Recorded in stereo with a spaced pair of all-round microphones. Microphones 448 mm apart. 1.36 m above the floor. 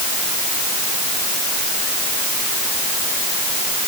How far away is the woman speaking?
No woman speaking in this recording.